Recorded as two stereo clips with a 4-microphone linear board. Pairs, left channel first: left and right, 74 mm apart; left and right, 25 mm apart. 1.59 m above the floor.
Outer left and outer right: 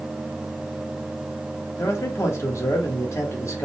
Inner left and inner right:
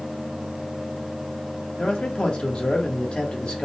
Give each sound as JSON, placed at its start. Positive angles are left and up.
{"t": 1.8, "sound": "a man speaking", "side_deg": 40, "distance_m": 1.3}